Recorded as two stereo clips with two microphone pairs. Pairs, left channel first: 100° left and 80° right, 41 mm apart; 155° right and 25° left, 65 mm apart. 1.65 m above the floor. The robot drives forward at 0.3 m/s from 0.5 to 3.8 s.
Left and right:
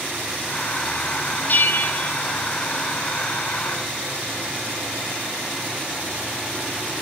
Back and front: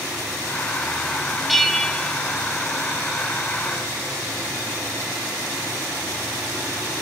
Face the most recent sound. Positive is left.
turn(degrees=155)